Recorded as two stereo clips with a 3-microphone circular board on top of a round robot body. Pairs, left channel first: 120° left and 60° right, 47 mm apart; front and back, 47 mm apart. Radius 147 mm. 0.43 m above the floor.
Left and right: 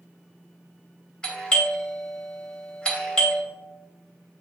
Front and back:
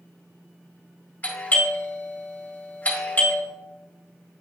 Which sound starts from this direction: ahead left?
A doorbell, at 1.2 s.